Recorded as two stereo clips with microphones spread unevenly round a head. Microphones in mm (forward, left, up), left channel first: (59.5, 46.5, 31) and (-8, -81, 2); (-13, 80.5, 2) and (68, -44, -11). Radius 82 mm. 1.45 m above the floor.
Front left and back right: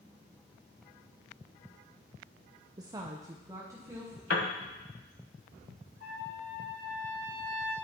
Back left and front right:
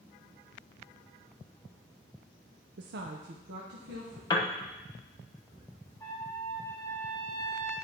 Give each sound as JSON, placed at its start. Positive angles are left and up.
{"t": 2.8, "sound": "a woman speaking", "azimuth_deg": -55, "distance_m": 0.6}
{"t": 4.3, "sound": "a piano", "azimuth_deg": 60, "distance_m": 1.1}
{"t": 6.0, "sound": "a trumpet", "azimuth_deg": 55, "distance_m": 3.0}